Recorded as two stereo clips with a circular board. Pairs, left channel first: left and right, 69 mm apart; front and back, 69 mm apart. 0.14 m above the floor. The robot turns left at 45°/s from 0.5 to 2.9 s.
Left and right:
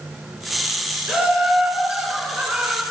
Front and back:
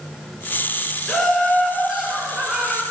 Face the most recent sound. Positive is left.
turn(degrees=-150)